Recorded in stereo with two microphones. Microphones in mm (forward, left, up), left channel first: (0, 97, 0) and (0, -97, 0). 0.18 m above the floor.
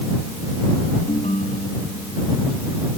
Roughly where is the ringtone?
Left.